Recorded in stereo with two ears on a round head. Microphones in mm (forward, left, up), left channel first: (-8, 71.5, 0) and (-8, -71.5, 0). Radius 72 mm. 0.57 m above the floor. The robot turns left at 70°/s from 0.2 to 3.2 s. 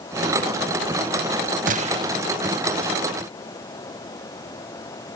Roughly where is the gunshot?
Behind right.